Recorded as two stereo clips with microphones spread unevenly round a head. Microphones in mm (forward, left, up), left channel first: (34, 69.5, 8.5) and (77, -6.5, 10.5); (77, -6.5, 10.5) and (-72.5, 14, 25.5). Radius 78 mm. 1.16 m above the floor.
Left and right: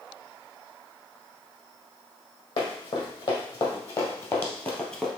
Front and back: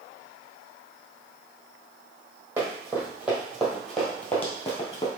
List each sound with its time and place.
2.6 s running footsteps: 100° left, 2 m; by 5.1 s 45° left, 1.3 m